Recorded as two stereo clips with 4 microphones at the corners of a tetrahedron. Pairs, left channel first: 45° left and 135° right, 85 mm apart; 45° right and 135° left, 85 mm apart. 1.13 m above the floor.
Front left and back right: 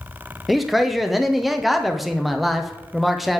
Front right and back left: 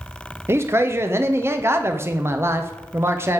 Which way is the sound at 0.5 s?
135° left.